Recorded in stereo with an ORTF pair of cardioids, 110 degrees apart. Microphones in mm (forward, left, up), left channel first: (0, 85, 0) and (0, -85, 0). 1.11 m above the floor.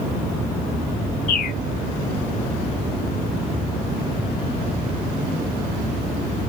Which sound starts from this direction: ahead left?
A bird, at 1.3 s.